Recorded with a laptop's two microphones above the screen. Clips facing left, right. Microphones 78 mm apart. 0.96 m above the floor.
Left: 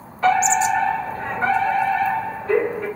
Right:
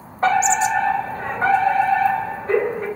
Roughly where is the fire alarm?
Right.